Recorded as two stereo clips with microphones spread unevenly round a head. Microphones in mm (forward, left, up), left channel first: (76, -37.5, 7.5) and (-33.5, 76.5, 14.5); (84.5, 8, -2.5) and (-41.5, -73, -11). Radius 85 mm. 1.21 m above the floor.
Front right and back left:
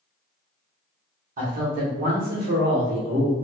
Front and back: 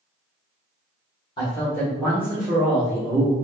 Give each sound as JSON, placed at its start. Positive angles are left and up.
{"t": 1.4, "sound": "a man speaking", "azimuth_deg": 100, "distance_m": 1.3}